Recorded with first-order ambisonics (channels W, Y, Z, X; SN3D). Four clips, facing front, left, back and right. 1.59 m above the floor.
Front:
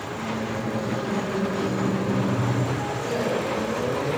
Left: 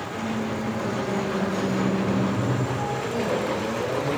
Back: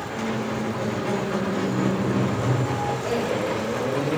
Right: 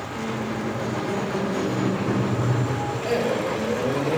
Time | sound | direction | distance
0.1 | a squeak | straight behind | 8 m
3.0 | a man speaking | 115° right | 5.5 m